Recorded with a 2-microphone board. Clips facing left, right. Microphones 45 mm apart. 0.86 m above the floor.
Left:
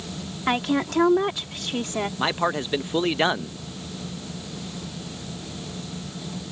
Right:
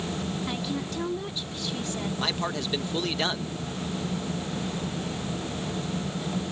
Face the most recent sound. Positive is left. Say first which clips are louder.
# left 7 dB
turn(degrees=30)  # may be behind; listen again after turning